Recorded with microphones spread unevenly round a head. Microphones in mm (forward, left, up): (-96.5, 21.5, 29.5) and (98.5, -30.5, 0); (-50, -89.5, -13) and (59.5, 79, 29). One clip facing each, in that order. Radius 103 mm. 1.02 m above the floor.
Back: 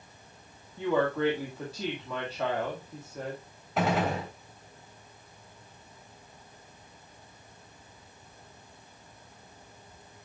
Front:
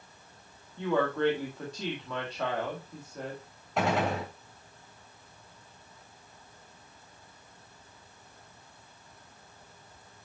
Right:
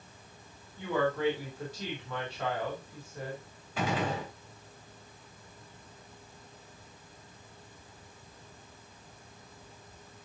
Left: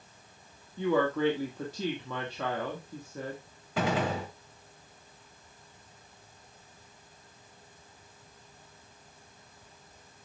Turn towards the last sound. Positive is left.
turn(degrees=80)